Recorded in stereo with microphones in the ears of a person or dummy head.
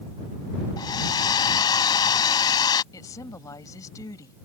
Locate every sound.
0.8 s a hair dryer: 20° left (ahead or behind)
2.9 s a woman speaking: 15° left (ahead or behind)